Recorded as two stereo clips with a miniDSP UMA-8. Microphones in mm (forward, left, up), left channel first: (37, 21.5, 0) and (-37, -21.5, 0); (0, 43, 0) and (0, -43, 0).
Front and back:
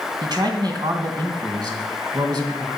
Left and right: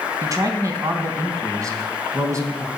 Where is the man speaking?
130° right, 3 m.